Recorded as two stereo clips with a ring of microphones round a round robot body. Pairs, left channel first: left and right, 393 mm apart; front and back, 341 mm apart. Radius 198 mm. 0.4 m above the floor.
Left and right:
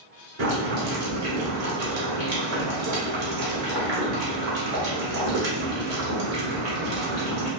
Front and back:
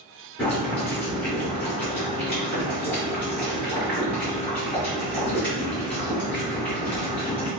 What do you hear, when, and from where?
0.4 s boiling: 80° right, 1.3 m